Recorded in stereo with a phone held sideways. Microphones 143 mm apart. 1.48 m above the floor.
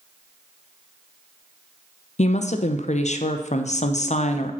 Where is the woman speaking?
55° left (ahead or behind), 0.5 m.